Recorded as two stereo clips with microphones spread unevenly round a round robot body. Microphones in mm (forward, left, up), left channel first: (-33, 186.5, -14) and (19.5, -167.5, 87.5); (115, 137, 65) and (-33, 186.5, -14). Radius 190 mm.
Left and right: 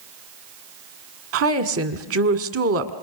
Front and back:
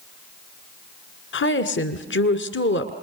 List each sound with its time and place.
1.3 s a woman speaking: 25° right, 1.8 m